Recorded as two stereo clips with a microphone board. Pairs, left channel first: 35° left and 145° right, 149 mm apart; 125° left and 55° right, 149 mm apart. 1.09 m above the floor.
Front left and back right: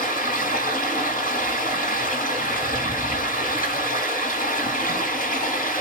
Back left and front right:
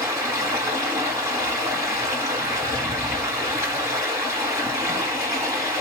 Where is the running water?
15° left, 2.5 m.